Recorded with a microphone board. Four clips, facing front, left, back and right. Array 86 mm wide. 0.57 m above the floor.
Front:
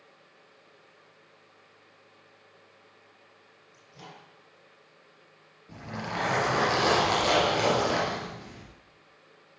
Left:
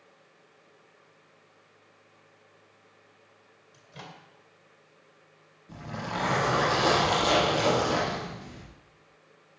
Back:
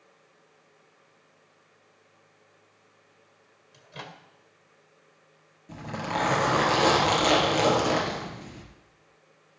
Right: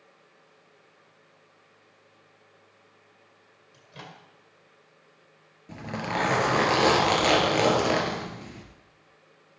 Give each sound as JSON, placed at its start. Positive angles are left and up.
{"t": 3.7, "sound": "a microwave", "azimuth_deg": -165, "distance_m": 2.0}
{"t": 5.7, "sound": "a zipper", "azimuth_deg": -105, "distance_m": 3.5}